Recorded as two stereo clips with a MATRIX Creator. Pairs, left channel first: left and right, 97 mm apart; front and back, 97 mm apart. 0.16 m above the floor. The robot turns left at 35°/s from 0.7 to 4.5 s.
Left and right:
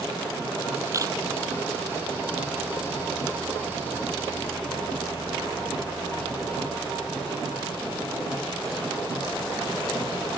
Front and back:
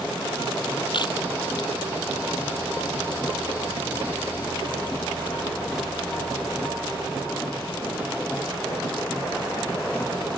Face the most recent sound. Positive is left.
turn(degrees=-160)